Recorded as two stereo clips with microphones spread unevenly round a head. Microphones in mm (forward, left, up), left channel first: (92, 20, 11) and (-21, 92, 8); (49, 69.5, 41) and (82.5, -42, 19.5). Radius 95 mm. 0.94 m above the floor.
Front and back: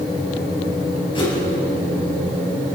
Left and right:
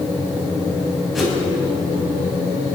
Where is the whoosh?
15° left, 7.5 m.